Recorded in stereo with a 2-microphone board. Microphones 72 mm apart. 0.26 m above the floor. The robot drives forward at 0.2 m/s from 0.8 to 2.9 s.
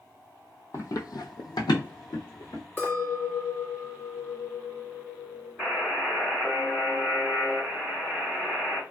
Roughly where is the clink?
Left.